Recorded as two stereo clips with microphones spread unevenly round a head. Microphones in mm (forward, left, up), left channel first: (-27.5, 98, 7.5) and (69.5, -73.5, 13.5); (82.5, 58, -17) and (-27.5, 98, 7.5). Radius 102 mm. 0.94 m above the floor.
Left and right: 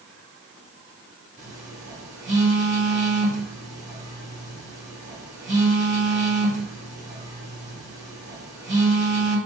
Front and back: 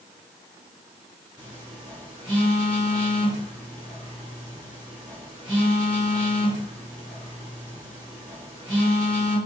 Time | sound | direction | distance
1.4 | a phone buzzing | 120° right | 1.4 m